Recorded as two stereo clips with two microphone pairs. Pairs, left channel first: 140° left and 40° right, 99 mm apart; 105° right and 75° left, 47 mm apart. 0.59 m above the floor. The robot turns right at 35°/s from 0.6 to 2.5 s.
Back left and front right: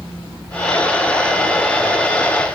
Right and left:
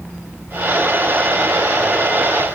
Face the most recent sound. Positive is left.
No sound to turn to.